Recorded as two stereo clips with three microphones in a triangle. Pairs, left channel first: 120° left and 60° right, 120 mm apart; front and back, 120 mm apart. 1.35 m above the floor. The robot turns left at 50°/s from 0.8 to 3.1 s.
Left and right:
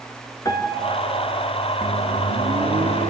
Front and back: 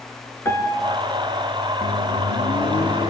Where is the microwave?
10° left, 2.5 m; by 3.1 s 55° right, 2.5 m.